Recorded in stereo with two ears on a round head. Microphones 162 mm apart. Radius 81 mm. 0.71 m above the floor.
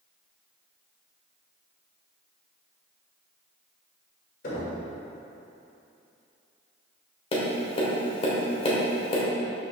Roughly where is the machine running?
No machine running in this recording.